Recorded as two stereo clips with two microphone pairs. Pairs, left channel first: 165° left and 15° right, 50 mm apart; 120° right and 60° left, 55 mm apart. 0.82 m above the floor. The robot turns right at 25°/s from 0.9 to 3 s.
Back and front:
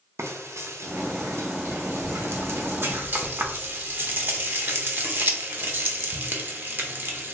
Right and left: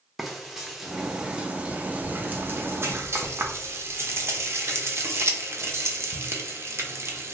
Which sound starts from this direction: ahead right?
Frying, at 0.2 s.